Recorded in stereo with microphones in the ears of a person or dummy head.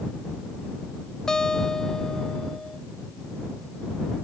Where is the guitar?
5° left (ahead or behind).